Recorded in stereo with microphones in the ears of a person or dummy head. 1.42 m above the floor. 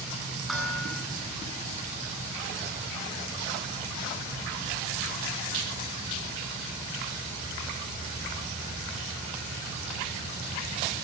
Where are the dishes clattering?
5° left (ahead or behind), 9 m.